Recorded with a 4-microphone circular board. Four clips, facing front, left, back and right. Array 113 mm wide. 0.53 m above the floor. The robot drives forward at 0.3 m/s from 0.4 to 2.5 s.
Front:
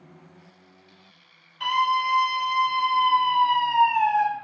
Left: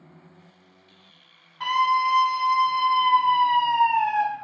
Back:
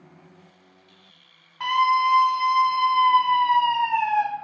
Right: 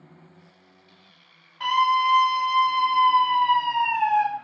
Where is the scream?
170° left, 1.8 m; by 4.2 s 175° left, 2 m.